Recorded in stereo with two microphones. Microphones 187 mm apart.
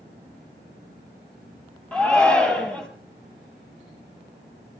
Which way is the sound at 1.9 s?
5° left (ahead or behind).